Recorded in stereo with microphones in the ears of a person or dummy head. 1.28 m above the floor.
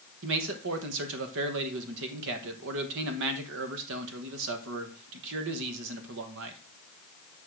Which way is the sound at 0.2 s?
70° right (ahead or behind).